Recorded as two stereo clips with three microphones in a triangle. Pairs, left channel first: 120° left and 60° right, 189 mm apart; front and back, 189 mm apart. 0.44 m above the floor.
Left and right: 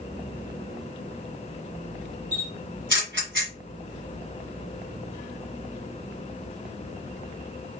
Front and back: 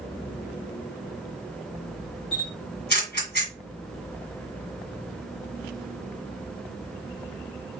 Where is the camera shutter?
35° right, 1.6 m.